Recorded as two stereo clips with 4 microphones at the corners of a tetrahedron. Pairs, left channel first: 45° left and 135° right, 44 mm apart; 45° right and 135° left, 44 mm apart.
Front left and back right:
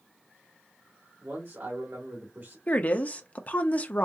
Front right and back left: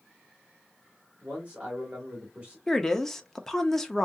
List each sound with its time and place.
1.2 s a man speaking: 160° right, 2 m
2.7 s a woman speaking: 30° left, 1.0 m